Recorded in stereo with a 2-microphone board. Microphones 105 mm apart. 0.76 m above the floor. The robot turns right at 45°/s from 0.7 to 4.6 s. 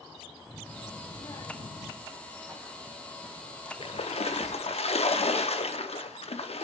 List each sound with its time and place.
0.5 s a child speaking: 15° left, 0.6 m; by 1.9 s 70° left, 0.6 m
2.0 s running footsteps: 25° right (ahead or behind), 3 m; by 4.8 s centre (ahead or behind), 0.7 m
3.8 s a splash: 65° left, 0.6 m; by 6.7 s 100° left, 0.6 m